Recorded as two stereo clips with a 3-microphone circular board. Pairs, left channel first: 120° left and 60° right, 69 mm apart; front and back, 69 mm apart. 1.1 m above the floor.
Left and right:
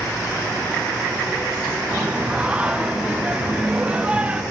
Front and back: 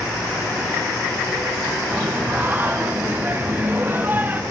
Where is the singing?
125° right, 0.9 m.